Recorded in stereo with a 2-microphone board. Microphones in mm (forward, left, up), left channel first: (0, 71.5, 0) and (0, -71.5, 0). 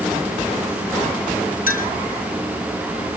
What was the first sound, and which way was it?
A clink, 75° left (ahead or behind).